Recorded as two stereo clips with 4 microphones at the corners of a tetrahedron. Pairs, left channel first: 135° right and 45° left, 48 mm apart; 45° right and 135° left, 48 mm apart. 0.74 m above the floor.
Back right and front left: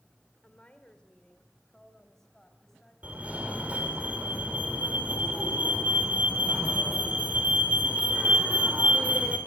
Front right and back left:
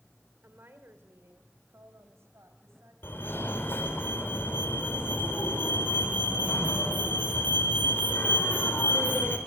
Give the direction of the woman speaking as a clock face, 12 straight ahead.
7 o'clock.